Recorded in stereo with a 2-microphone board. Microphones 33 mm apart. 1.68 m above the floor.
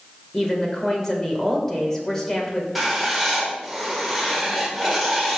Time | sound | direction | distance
0.3 | a woman speaking | 15° left (ahead or behind) | 2 m
2.8 | writing | centre (ahead or behind) | 2.0 m